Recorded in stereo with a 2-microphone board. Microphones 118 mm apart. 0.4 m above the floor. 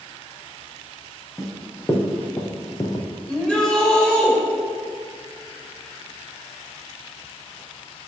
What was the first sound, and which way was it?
Running footsteps, 10° left (ahead or behind).